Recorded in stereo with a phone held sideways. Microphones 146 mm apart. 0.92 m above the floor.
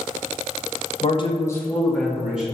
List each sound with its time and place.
1.0 s a man speaking: 45° left (ahead or behind), 0.7 m; by 2.5 s 10° right (ahead or behind), 1.5 m